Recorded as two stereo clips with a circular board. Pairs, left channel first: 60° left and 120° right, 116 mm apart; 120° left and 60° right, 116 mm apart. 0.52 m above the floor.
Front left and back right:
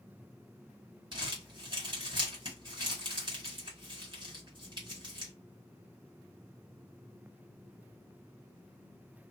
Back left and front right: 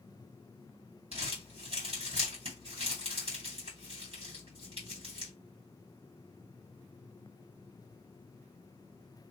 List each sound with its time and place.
1.1 s crumpling: 80° right, 2.0 m